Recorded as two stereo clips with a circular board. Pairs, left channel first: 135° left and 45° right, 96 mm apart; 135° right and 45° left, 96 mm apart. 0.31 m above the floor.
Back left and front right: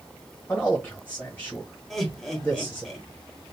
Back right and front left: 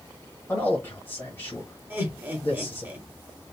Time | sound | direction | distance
0.5 | a man speaking | 175° right | 1.0 m
1.9 | laughter | 50° left | 1.0 m